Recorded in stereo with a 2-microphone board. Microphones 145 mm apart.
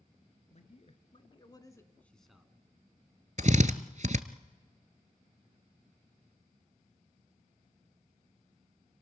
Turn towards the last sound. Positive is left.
turn(degrees=-60)  # may be behind; listen again after turning